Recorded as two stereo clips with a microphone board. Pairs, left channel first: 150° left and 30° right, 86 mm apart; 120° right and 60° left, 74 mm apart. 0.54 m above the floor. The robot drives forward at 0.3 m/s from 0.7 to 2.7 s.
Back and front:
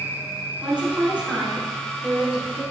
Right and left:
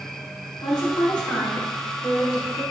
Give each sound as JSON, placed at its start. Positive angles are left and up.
{"t": 0.6, "sound": "a woman speaking", "azimuth_deg": -105, "distance_m": 4.0}